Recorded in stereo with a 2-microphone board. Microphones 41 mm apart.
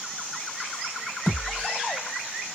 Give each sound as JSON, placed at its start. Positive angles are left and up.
{"t": 1.3, "sound": "a thud", "side_deg": 65, "distance_m": 1.6}